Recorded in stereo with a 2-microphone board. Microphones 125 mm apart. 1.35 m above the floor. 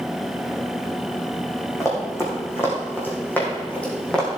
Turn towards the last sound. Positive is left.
turn(degrees=5)  # may be behind; listen again after turning